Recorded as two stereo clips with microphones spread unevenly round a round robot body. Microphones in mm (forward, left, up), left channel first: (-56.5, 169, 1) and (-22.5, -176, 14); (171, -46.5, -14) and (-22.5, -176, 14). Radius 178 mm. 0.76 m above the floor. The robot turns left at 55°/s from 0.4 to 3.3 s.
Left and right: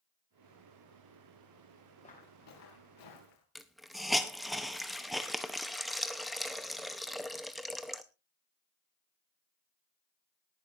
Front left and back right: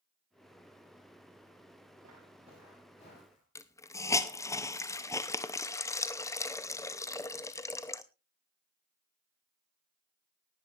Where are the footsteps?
170° left, 4.5 m; by 3.5 s 90° left, 5 m.